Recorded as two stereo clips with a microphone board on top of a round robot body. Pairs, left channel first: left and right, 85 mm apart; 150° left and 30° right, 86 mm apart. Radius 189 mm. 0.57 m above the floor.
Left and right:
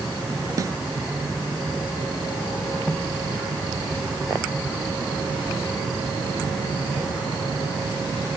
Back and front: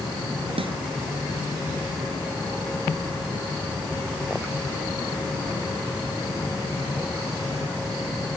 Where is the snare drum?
40° right.